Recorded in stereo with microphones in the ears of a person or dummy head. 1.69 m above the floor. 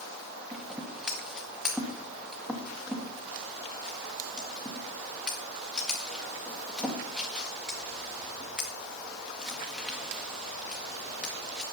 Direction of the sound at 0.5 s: 5° right (ahead or behind).